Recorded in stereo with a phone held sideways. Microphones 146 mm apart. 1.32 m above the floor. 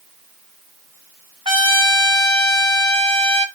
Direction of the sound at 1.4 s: 35° right (ahead or behind).